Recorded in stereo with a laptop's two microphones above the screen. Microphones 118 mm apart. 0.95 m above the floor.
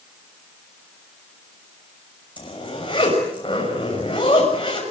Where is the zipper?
40° left (ahead or behind), 6.5 m.